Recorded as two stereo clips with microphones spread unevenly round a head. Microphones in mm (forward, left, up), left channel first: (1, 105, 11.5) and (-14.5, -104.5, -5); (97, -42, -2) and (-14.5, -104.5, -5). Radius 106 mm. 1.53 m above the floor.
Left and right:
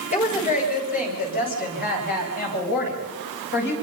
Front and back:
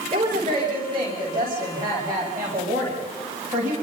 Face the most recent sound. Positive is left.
turn(degrees=130)